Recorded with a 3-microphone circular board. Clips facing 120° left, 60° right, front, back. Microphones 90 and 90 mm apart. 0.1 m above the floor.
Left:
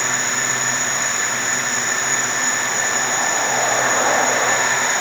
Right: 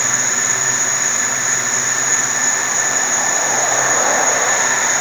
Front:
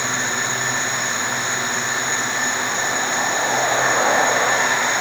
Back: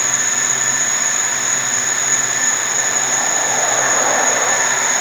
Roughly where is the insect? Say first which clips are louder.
Even, front 1 dB; behind.